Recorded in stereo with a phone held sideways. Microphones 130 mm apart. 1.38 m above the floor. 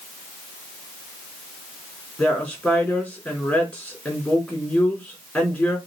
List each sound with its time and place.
2.2 s a woman speaking: 10° left (ahead or behind), 4.5 m